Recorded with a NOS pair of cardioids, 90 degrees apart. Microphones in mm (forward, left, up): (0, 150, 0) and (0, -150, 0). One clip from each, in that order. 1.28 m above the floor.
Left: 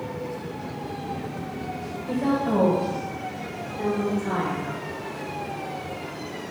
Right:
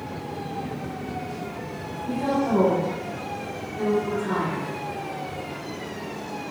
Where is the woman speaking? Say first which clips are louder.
Even; 10° left, 0.9 m; by 4.7 s 5° right, 3 m.